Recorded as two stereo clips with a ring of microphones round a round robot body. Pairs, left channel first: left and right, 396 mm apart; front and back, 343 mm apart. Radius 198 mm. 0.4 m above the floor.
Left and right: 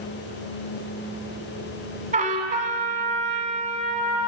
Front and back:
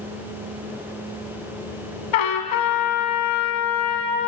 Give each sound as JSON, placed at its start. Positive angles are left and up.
{"t": 2.1, "sound": "a trumpet", "azimuth_deg": -15, "distance_m": 1.1}